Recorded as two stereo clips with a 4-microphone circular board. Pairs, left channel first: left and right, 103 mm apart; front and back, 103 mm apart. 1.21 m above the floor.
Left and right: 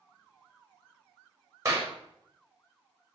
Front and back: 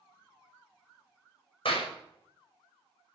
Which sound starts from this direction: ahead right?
A clap, at 1.6 s.